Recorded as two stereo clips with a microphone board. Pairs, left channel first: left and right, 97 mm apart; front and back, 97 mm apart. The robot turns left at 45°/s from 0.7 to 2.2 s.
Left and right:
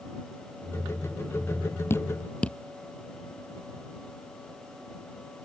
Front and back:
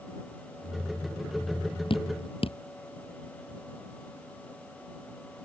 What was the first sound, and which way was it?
Dripping, 25° left.